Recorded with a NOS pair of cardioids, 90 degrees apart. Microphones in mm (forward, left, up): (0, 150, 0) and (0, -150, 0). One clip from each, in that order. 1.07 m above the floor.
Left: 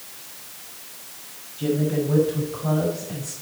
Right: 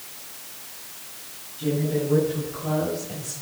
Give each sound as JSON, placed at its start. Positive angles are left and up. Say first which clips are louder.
{"t": 1.6, "sound": "a woman speaking", "louder": "left 2 dB", "azimuth_deg": 45, "distance_m": 5.5}